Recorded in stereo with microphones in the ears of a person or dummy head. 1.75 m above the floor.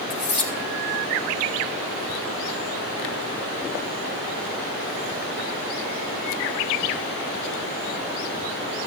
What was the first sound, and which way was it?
Cutlery clinking, 35° left (ahead or behind).